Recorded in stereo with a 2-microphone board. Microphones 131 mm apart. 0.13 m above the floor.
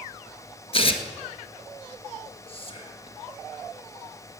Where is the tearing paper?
45° left (ahead or behind), 1.3 m.